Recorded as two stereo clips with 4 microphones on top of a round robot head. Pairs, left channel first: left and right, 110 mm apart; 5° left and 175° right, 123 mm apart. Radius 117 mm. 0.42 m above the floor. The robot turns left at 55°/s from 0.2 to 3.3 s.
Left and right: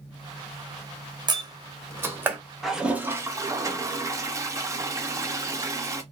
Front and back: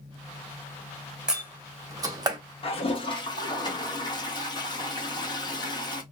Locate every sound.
1.3 s a door slam: 100° right, 0.9 m; by 2.4 s 160° right, 0.9 m
2.6 s a toilet flushing: straight ahead, 0.9 m; by 6.0 s 40° right, 0.9 m